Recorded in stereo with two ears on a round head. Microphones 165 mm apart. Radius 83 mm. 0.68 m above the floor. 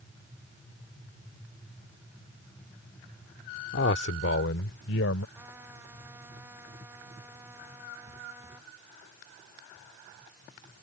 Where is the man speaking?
65° left (ahead or behind); by 5.2 s 80° left.